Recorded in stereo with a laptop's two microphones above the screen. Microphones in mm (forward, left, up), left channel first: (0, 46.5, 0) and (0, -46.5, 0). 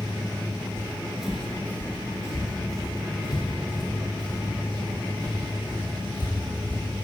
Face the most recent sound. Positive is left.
turn(degrees=60)  # may be behind; listen again after turning